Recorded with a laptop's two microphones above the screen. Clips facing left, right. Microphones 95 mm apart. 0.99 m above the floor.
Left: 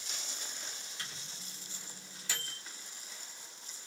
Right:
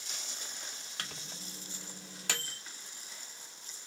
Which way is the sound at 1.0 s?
65° right (ahead or behind).